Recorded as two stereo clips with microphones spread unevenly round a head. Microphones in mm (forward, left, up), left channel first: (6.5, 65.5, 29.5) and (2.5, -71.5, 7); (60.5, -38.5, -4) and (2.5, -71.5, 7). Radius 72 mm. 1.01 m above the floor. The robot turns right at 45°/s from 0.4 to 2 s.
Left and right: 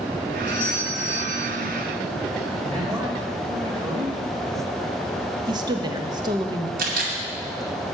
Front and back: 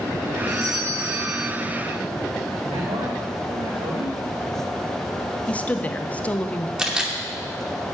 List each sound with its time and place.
0.5 s a doorbell: 160° left, 5 m; by 1.5 s 155° right, 5 m
2.7 s a man speaking: 155° right, 1.6 m
5.5 s a woman speaking: 35° right, 1.0 m
6.8 s a camera shutter: 70° right, 2.5 m